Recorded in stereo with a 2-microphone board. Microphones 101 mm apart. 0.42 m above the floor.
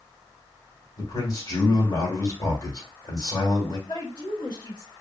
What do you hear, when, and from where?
1.0 s a man speaking: 40° left (ahead or behind), 1.3 m
3.9 s a woman speaking: 45° left (ahead or behind), 1.7 m